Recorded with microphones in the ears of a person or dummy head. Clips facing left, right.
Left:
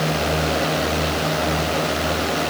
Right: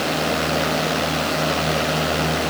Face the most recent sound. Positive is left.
No sound to turn to.